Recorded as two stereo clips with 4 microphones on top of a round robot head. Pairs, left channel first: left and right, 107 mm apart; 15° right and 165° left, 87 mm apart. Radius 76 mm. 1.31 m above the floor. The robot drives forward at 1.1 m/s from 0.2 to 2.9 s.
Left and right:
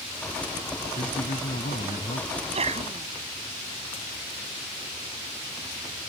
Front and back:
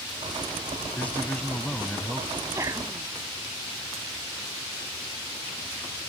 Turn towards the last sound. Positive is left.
turn(degrees=-125)